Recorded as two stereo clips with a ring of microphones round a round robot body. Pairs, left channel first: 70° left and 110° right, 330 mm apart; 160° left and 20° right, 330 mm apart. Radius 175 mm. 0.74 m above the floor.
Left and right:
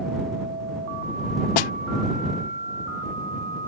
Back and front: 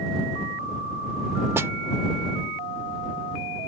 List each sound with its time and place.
1.6 s a snare drum: 60° left